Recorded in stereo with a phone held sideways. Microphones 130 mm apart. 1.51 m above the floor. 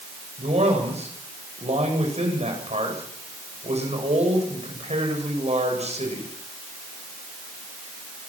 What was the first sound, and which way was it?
A man speaking, 60° right (ahead or behind).